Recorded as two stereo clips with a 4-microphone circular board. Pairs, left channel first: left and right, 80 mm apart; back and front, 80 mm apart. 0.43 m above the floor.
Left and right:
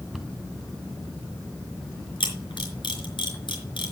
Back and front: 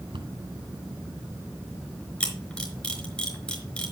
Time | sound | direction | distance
0.1 | a cupboard door | straight ahead | 1.9 m
2.2 | a camera shutter | 105° left | 4.5 m